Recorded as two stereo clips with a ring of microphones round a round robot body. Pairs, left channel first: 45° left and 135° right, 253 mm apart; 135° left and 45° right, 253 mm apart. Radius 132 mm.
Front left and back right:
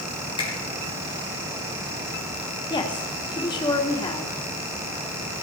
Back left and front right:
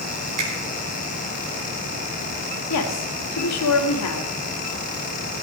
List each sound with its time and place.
0.4 s a finger snap: 25° right, 5.5 m
2.7 s a woman speaking: 115° left, 1.7 m